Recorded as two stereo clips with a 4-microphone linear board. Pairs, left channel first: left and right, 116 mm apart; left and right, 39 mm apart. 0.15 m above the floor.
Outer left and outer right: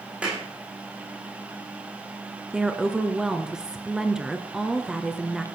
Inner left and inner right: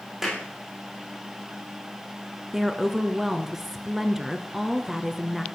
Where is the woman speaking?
5° right (ahead or behind), 2.5 m.